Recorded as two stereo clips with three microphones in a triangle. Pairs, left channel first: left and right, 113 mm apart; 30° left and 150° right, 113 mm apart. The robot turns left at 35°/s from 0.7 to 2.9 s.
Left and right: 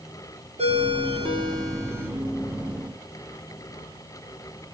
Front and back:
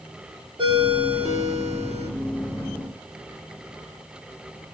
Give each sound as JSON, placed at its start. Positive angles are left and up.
{"t": 0.6, "sound": "a ringtone", "azimuth_deg": -110, "distance_m": 2.5}